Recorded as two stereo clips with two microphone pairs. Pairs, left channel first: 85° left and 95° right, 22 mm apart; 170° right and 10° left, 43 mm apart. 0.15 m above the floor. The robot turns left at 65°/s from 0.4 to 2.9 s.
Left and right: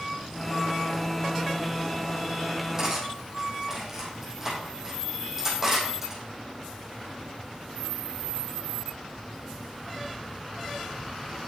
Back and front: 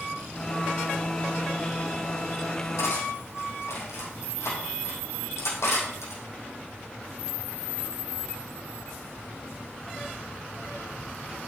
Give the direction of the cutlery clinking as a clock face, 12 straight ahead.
5 o'clock.